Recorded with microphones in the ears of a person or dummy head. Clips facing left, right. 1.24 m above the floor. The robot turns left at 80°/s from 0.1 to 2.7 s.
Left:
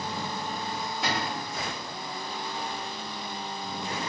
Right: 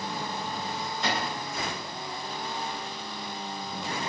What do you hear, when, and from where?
1.0 s a cupboard door: 170° left, 1.5 m; by 1.5 s 135° left, 1.5 m